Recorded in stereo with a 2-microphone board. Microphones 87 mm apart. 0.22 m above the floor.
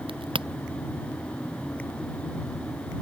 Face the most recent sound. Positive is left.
turn(degrees=-80)